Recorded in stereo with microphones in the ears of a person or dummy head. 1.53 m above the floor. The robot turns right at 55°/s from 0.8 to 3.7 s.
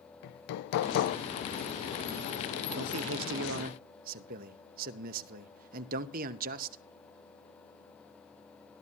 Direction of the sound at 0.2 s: 65° left (ahead or behind).